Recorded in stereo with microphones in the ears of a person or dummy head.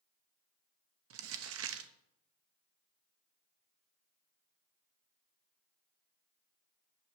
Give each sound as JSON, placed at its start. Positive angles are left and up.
{"t": 1.1, "sound": "crumpling", "side_deg": -70, "distance_m": 0.8}